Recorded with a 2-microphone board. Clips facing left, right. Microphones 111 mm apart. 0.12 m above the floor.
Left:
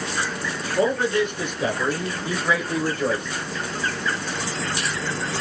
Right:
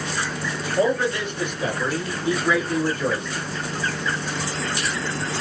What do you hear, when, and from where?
0.8 s a man speaking: 25° left (ahead or behind), 1.7 m; by 3.3 s 10° left (ahead or behind), 1.8 m